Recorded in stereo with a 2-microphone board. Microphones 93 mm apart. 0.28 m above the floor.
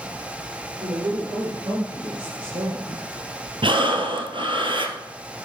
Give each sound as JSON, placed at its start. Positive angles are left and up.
{"t": 0.8, "sound": "a woman speaking", "side_deg": -65, "distance_m": 5.0}
{"t": 3.6, "sound": "breathing", "side_deg": -65, "distance_m": 1.3}